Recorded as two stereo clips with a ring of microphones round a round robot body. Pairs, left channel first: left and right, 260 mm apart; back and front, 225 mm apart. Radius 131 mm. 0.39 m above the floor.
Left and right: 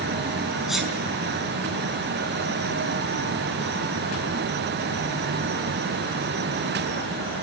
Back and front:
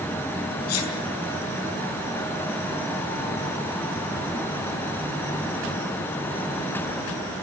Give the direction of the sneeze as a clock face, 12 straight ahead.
6 o'clock.